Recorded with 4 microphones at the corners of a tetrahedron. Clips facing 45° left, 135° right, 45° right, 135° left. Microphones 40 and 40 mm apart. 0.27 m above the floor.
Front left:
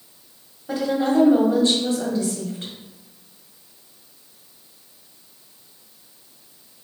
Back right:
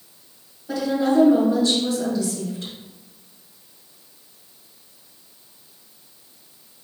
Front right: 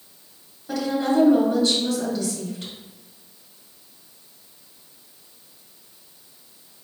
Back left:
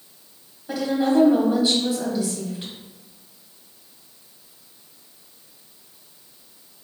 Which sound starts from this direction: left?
A woman speaking, at 0.7 s.